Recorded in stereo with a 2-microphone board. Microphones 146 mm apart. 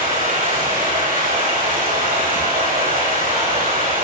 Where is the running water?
85° right, 6 m.